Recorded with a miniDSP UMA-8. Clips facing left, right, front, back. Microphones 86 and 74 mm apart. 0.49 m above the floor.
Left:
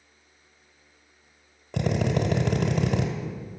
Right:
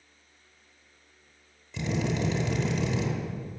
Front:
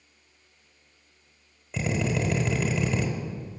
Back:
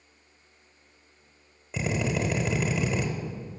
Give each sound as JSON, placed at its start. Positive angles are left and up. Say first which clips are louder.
{"t": 1.7, "sound": "a drill", "louder": "left 4 dB, front 1 dB", "azimuth_deg": 100, "distance_m": 1.2}